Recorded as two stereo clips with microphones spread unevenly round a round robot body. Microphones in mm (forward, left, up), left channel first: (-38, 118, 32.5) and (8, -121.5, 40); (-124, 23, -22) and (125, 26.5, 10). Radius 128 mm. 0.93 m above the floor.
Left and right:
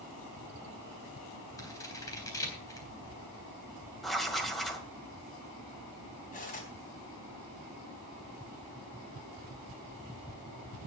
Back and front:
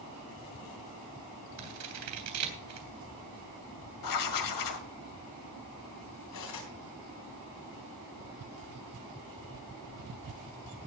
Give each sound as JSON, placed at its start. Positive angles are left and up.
{"t": 1.6, "sound": "scissors", "azimuth_deg": 25, "distance_m": 3.5}
{"t": 4.0, "sound": "writing", "azimuth_deg": -170, "distance_m": 1.8}
{"t": 6.3, "sound": "cutlery clinking", "azimuth_deg": 160, "distance_m": 4.0}